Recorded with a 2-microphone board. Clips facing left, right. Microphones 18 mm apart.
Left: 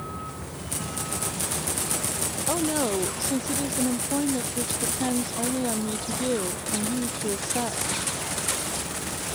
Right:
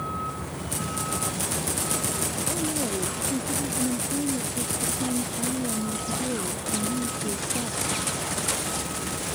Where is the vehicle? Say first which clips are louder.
Right 5 dB; 20° right (ahead or behind); by 9.4 s 30° right (ahead or behind).